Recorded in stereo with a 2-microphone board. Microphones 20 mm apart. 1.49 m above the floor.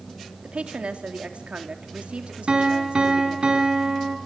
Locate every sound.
0.4 s a woman speaking: 80° right, 3 m
2.5 s a piano: 45° right (ahead or behind), 4.5 m